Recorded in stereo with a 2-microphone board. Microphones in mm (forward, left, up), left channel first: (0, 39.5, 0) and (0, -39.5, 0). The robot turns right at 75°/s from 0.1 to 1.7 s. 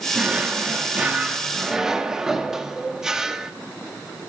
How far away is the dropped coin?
No dropped coin in this recording.